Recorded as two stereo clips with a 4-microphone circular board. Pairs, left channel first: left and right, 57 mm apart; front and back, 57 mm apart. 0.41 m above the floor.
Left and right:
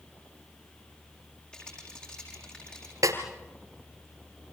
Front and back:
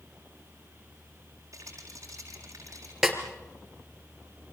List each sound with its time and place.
1.5 s a rattle: 160° left, 6.5 m
3.0 s a snare drum: 95° right, 2.5 m